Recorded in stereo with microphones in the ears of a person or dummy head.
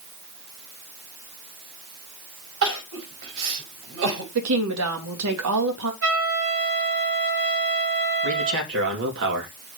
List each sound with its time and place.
2.6 s crying: 65° right (ahead or behind), 5.5 m
4.3 s a woman speaking: 85° right, 3 m
6.0 s a trumpet: 85° right, 5.5 m
8.2 s a man speaking: 65° right (ahead or behind), 3 m